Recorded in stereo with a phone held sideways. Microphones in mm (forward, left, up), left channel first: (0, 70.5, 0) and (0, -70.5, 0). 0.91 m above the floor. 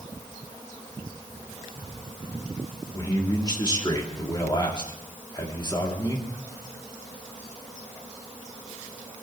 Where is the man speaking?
30° left (ahead or behind), 2.5 m.